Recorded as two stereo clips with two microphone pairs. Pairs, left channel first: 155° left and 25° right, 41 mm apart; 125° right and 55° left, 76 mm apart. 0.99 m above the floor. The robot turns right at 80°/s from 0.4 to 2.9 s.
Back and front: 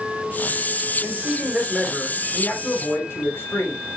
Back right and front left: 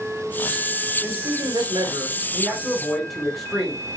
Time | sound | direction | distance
1.0 | a man speaking | 5° right | 4 m